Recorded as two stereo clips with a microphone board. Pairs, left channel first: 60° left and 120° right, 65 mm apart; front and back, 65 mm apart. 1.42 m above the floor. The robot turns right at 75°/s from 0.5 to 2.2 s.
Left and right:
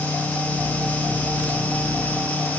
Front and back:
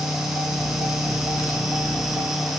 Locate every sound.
Only background noise.